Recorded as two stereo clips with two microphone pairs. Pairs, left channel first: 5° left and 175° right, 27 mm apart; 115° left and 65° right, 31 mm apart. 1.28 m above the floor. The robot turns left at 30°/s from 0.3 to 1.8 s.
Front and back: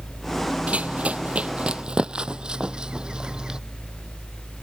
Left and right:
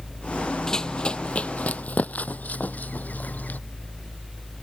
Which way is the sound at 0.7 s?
175° right.